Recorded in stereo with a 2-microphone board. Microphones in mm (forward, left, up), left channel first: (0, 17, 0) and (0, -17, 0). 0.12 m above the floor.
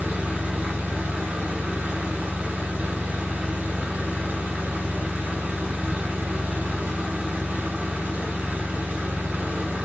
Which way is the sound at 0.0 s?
60° right (ahead or behind).